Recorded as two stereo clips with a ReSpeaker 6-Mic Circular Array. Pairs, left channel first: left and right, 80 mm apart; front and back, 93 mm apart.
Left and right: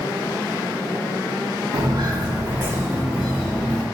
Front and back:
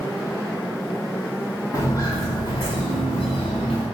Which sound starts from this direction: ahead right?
Footsteps, at 1.7 s.